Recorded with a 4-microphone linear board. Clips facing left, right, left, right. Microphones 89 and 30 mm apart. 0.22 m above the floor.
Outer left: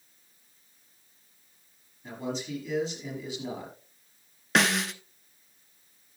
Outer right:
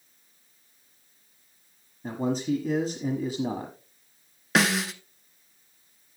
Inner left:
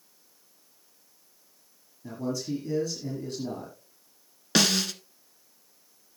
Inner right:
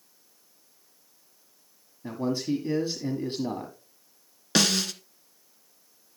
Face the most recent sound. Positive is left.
turn(degrees=0)  # may be behind; listen again after turning